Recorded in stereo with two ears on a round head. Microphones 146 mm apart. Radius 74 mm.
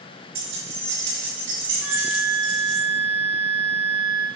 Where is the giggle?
No giggle in this recording.